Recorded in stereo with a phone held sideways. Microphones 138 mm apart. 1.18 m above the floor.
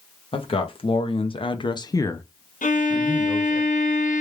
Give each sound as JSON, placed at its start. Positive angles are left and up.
{"t": 0.3, "sound": "a man speaking", "side_deg": 40, "distance_m": 1.1}
{"t": 2.6, "sound": "a violin", "side_deg": 70, "distance_m": 0.8}